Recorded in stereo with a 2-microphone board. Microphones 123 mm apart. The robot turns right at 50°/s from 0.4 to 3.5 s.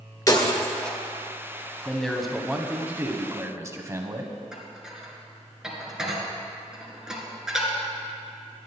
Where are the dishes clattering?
5° right (ahead or behind), 2 m.